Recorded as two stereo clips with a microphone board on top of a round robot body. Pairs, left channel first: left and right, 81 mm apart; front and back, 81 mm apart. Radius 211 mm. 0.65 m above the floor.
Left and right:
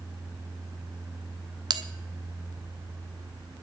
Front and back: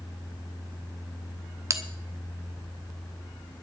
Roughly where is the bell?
Behind right.